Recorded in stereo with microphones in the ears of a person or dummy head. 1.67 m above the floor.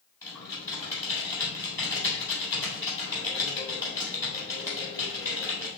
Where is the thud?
No thud in this recording.